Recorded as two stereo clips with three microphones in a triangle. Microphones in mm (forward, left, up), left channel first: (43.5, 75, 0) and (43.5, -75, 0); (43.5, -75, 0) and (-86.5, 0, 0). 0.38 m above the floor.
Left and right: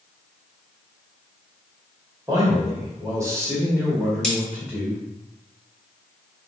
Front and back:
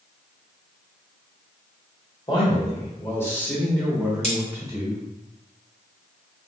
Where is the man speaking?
45° right, 1.4 m; by 5.1 s 175° right, 1.3 m.